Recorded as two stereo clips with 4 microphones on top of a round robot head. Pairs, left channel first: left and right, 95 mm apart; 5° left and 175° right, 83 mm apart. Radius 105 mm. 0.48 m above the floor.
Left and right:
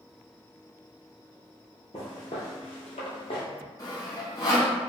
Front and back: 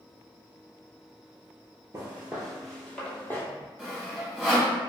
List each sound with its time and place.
1.9 s footsteps: 135° left, 0.6 m; by 3.5 s 65° left, 0.9 m
3.8 s sawing: 90° left, 1.6 m